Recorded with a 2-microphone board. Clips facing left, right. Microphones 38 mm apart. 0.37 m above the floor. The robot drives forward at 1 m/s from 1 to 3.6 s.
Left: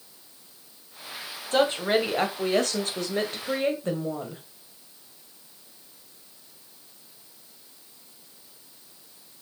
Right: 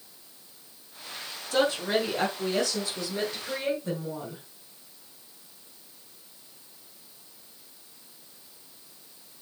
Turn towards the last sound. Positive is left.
turn(degrees=45)  # may be behind; listen again after turning